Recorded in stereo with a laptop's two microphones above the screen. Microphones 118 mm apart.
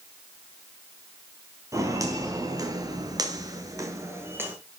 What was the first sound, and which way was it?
Footsteps, 25° right (ahead or behind).